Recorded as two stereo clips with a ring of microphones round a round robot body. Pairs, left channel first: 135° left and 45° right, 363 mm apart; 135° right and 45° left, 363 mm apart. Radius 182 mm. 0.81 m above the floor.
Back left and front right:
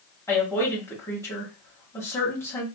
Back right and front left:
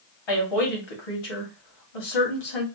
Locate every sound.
0.3 s a woman speaking: 140° right, 1.6 m